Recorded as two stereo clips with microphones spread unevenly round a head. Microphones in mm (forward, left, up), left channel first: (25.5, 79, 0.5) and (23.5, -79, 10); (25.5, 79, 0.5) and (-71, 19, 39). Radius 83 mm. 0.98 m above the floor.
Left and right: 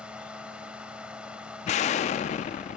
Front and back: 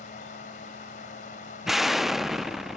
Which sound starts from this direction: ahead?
A fan, at 0.0 s.